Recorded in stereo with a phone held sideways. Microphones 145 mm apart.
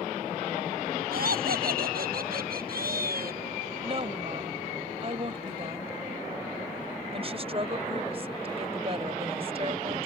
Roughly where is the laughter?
Right.